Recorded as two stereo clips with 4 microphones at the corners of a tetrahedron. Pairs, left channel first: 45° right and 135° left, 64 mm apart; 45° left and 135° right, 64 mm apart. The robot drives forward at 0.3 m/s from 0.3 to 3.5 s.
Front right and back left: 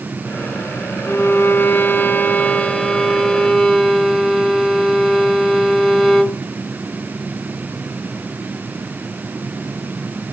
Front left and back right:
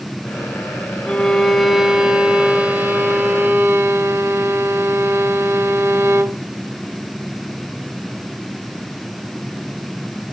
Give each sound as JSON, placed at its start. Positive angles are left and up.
{"t": 1.1, "sound": "a violin", "azimuth_deg": -30, "distance_m": 0.7}